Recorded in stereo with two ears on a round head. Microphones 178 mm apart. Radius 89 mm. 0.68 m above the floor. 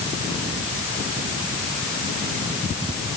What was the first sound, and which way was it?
Only background noise.